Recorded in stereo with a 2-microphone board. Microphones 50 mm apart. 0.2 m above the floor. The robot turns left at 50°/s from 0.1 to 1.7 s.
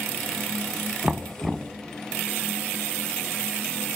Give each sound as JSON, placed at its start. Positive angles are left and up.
{"t": 1.0, "sound": "knocking", "azimuth_deg": -165, "distance_m": 0.9}